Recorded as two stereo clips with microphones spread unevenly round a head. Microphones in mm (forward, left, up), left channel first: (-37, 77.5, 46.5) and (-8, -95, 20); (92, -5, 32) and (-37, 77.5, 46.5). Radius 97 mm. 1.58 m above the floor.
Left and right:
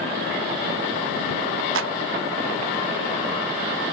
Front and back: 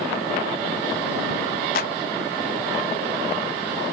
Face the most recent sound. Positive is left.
turn(degrees=-70)